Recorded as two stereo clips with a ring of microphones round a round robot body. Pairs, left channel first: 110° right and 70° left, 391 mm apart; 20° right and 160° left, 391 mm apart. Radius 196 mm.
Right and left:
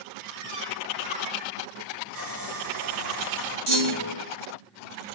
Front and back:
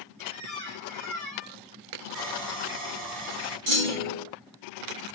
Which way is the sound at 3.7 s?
120° left.